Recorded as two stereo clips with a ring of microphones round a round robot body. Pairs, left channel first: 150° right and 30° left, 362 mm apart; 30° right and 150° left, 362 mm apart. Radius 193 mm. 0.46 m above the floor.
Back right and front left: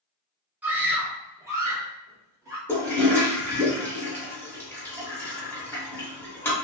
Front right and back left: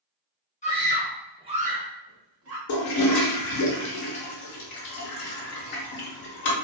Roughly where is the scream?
Ahead right.